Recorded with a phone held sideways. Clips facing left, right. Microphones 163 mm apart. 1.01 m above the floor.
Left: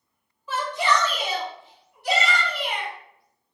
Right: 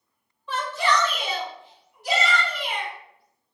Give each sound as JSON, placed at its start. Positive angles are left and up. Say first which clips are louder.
{"t": 0.5, "sound": "a shout", "louder": "left 1 dB", "side_deg": 5, "distance_m": 0.9}